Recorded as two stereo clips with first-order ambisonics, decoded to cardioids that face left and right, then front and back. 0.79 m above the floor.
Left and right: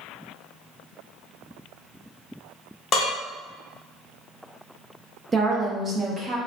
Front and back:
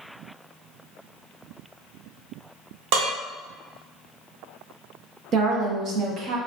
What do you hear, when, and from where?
2.9 s dishes clattering: 150° left, 0.9 m
5.3 s a woman speaking: 155° right, 0.6 m